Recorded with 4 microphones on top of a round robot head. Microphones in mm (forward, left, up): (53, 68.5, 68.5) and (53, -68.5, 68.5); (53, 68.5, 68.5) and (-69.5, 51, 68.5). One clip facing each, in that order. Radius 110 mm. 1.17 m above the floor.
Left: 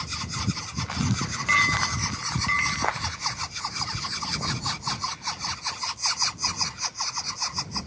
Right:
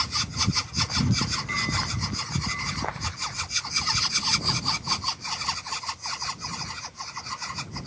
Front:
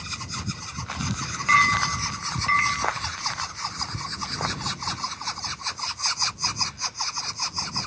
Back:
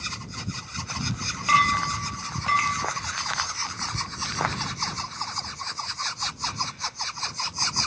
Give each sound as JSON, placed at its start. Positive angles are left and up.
{"t": 1.5, "sound": "a clink", "azimuth_deg": 115}